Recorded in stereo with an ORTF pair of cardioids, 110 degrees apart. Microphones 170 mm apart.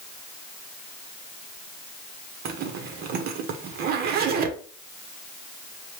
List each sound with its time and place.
2.5 s a zipper: 65° right, 0.8 m